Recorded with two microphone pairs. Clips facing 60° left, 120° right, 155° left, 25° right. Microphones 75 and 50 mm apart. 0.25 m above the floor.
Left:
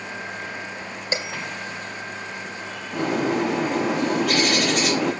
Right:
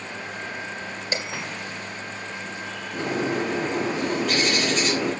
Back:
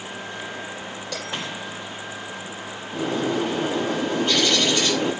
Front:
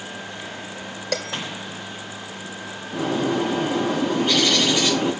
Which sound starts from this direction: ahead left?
A bird, at 2.9 s.